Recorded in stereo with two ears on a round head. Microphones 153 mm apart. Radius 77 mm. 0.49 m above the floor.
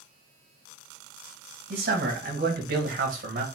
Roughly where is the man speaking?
Right.